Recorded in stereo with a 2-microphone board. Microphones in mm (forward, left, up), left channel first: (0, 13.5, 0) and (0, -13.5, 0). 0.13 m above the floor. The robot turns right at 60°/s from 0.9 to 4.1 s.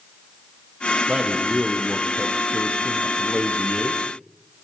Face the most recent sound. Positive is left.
turn(degrees=145)